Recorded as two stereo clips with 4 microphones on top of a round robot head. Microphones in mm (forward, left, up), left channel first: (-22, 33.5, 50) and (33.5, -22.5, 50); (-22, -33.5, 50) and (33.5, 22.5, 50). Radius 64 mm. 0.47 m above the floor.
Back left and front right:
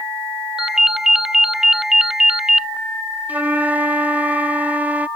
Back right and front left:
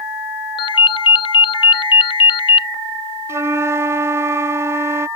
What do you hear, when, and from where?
0.6 s a ringtone: 130° right
3.3 s a flute: 15° left